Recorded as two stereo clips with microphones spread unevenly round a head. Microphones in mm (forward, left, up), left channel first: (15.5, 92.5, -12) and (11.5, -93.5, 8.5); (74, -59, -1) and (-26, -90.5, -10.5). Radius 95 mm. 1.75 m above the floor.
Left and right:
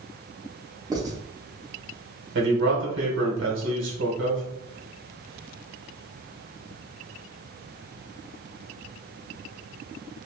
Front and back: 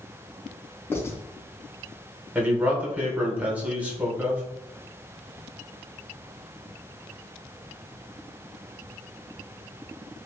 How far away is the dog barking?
I don't hear a dog barking.